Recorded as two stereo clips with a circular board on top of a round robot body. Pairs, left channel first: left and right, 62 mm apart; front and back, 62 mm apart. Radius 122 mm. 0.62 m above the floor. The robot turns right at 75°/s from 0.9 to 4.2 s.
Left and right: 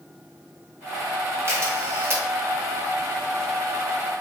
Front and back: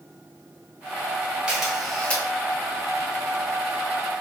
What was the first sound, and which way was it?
A camera shutter, 110° right.